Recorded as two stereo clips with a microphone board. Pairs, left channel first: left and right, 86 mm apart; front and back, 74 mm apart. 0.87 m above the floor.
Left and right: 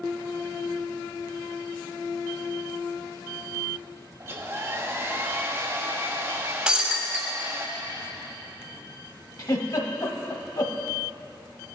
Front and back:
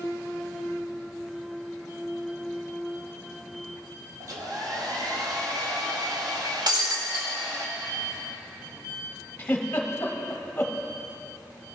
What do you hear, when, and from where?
4.2 s a hair dryer: 145° right, 0.9 m
6.7 s breaking glass: 170° right, 1.5 m
9.4 s a giggle: 60° left, 1.2 m